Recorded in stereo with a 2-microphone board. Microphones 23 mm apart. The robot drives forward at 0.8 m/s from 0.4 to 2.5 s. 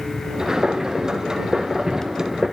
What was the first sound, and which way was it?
Only background noise.